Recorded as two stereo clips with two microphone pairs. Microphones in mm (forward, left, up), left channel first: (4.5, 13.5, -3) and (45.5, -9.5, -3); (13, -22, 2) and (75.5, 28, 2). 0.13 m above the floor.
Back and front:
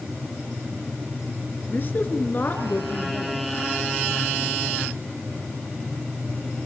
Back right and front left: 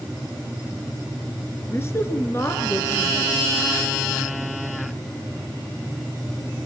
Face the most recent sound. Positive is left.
turn(degrees=175)